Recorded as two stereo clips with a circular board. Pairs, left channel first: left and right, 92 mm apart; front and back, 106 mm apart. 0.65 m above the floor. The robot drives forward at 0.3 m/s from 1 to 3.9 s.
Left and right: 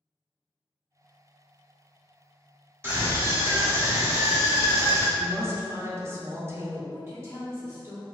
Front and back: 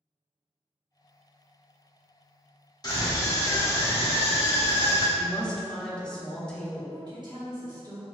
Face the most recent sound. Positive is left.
turn(degrees=-140)